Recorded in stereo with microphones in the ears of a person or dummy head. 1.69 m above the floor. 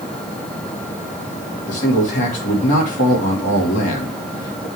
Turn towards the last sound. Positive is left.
turn(degrees=45)  # may be behind; listen again after turning